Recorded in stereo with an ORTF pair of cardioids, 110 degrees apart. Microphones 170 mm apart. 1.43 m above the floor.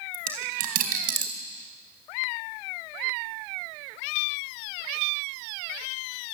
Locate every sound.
0.1 s a dropped coin: 60° right, 4 m